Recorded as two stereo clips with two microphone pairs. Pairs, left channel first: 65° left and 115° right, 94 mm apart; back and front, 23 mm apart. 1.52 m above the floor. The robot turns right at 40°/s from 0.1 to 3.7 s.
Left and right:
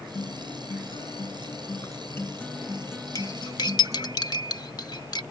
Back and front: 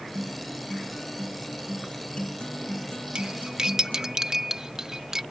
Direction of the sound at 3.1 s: 30° left.